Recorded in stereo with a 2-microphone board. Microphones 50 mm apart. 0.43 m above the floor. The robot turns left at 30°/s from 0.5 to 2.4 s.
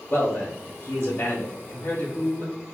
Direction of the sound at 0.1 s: 125° left.